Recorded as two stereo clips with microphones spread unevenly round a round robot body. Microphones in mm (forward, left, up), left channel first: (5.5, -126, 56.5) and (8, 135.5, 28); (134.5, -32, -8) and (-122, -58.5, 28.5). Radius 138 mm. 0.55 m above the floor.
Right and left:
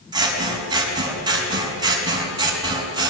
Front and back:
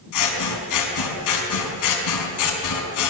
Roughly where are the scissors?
Ahead.